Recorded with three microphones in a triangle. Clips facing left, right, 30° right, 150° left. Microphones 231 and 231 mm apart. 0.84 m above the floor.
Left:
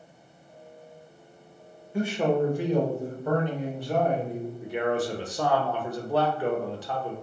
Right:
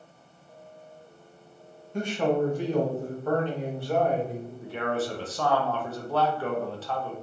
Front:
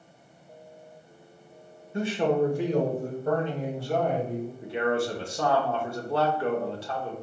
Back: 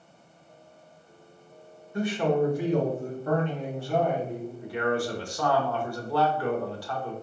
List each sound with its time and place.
1.9 s a man speaking: 10° left, 0.9 m; by 4.5 s 20° left, 2.0 m
4.6 s a man speaking: 20° left, 0.8 m